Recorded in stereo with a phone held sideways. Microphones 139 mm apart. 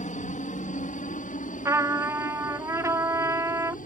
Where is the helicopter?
65° left (ahead or behind); by 3.9 s 70° left (ahead or behind).